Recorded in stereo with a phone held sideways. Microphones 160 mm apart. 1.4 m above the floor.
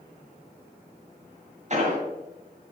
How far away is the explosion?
About 1.9 m.